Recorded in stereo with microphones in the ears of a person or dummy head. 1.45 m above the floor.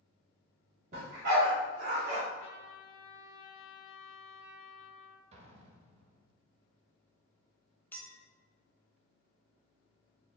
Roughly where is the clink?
Centre.